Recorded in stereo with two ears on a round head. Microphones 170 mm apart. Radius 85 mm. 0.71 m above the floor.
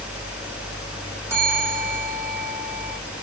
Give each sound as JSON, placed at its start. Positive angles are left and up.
{"t": 1.3, "sound": "a bell", "side_deg": -15, "distance_m": 8.0}